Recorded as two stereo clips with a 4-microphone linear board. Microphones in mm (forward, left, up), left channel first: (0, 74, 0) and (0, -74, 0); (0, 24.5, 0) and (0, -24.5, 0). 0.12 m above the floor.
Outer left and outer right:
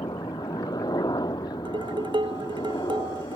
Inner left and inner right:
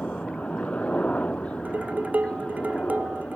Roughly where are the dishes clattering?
Right.